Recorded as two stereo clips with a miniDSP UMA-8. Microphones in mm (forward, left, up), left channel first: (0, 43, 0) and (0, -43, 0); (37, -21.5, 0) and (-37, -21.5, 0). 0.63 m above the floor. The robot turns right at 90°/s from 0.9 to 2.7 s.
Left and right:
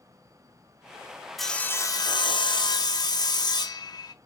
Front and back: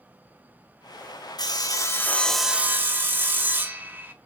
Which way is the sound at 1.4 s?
Straight ahead.